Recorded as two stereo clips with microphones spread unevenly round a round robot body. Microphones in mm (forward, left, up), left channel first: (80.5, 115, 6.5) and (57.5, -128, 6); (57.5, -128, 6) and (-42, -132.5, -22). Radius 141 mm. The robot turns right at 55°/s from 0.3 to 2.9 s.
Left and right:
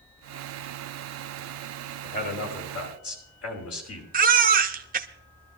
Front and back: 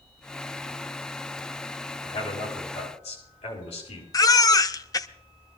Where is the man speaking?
20° left, 5 m; by 4.0 s 70° left, 5 m.